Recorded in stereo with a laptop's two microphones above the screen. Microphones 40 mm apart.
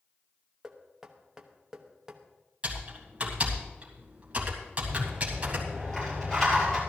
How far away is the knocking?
About 1.0 m.